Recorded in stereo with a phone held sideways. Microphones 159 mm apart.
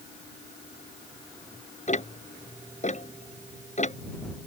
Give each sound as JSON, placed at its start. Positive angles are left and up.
{"t": 1.9, "sound": "ticking", "side_deg": 50}